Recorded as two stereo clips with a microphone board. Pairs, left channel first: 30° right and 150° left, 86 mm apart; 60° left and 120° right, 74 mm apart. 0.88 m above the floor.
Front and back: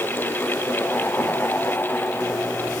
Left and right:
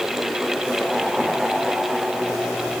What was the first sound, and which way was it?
Only background noise.